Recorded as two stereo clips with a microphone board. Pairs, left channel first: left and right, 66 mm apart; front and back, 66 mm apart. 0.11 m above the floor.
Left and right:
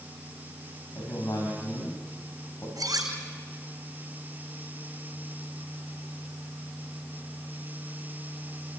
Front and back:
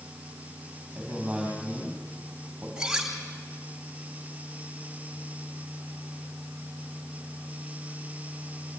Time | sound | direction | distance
0.9 | a man speaking | 105° left | 4.5 m
2.8 | cutlery clinking | 95° right | 3.5 m